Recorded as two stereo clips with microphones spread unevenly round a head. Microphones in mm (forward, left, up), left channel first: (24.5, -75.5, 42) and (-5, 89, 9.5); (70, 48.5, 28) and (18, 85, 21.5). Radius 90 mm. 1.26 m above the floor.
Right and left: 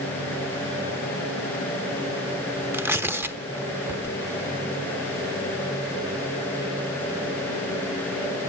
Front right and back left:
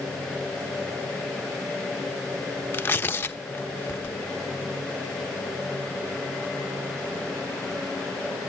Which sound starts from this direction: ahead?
Tearing paper, at 2.7 s.